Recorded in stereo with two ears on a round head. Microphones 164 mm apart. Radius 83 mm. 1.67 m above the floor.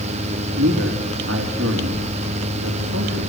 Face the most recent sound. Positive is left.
turn(degrees=-70)  # may be behind; listen again after turning